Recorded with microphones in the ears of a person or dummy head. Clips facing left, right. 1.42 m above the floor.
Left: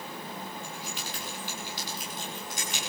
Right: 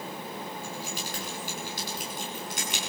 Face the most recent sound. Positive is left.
turn(degrees=-55)  # may be behind; listen again after turning